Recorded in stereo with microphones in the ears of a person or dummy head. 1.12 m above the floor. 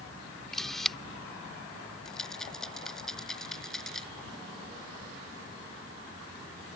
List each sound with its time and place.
0.5 s a camera shutter: 5° right (ahead or behind)
2.0 s a rattle: centre (ahead or behind)